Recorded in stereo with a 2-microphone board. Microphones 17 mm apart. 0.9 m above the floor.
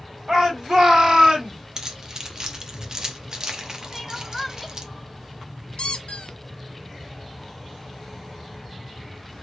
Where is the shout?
35° right (ahead or behind), 2.5 m; by 1.6 s 55° right (ahead or behind), 1.9 m.